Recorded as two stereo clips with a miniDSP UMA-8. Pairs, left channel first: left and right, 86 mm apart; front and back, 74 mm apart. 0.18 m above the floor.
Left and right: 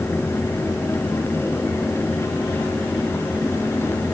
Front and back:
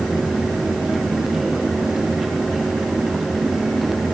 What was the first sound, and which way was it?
Only background noise.